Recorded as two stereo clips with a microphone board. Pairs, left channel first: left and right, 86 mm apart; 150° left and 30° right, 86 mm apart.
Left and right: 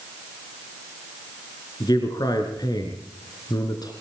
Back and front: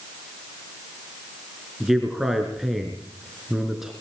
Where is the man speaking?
55° left, 4 m.